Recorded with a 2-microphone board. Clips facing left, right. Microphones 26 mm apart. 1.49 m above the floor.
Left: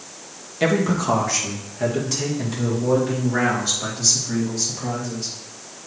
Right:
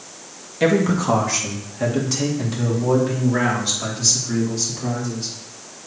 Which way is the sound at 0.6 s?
Centre (ahead or behind).